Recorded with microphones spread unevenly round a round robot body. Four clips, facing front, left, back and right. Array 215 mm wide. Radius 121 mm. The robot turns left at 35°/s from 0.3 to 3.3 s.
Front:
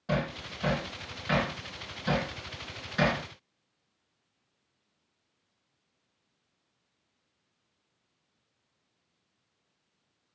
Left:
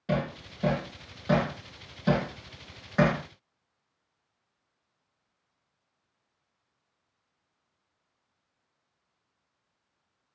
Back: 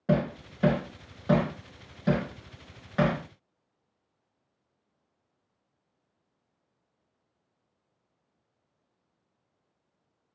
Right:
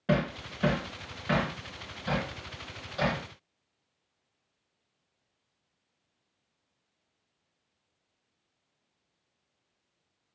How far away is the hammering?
About 3 m.